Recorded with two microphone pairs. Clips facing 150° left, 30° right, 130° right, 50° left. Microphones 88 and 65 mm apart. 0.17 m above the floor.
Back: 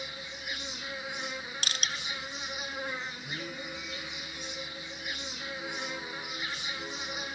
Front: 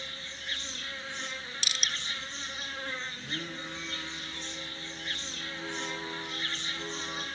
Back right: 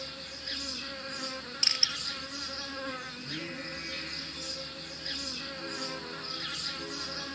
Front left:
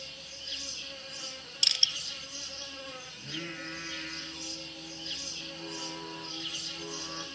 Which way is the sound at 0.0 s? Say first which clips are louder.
Back 2 dB, back right 5 dB; 135° right.